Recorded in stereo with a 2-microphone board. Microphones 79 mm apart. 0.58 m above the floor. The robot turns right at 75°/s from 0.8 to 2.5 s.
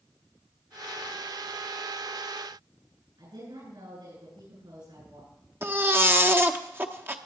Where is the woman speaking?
80° right, 9.5 m.